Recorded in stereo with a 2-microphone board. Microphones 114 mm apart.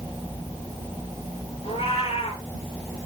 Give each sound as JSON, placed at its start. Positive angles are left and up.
{"t": 1.6, "sound": "a cat meowing", "side_deg": 70, "distance_m": 6.0}